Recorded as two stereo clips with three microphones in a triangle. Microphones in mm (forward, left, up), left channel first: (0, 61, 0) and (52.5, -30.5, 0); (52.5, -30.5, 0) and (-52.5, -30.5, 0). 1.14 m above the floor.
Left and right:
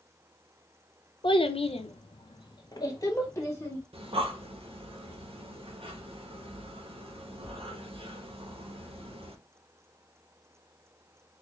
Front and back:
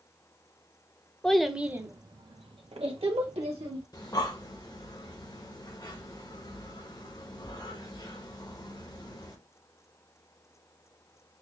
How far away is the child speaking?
About 0.6 m.